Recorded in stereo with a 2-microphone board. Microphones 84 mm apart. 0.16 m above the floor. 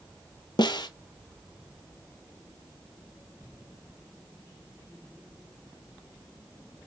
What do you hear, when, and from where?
0.6 s a snare drum: 60° left (ahead or behind), 0.6 m